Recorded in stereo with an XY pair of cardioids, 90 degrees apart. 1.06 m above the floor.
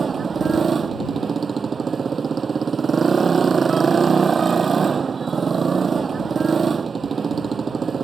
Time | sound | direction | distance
0.0 | a motorcycle | 40° right | ?